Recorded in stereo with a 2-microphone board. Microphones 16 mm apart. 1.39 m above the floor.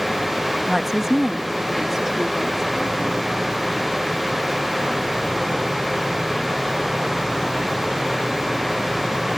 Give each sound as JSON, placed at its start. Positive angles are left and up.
{"t": 0.7, "sound": "a woman speaking", "side_deg": -35}